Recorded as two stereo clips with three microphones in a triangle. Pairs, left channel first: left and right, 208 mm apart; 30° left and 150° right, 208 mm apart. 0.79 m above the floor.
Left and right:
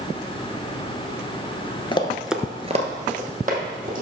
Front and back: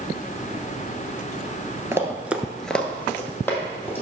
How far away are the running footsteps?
About 0.9 m.